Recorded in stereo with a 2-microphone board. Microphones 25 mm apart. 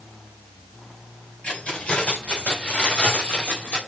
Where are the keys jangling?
70° left (ahead or behind), 5 m; by 3.8 s 75° left (ahead or behind), 3.5 m.